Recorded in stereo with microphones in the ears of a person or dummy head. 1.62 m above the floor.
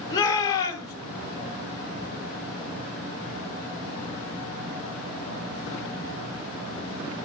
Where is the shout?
20° left (ahead or behind), 2.5 m.